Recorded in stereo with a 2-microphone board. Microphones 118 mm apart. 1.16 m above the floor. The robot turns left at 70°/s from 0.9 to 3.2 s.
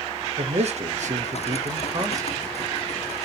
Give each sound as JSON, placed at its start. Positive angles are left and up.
{"t": 0.4, "sound": "a man speaking", "azimuth_deg": -65, "distance_m": 0.7}